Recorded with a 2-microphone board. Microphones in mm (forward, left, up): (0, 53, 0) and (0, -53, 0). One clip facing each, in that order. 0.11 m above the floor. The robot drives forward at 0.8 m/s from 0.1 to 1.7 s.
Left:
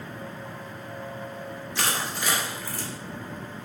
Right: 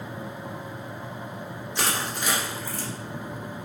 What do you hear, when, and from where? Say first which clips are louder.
1.8 s crushing: right 1 dB; 20° right (ahead or behind), 1.8 m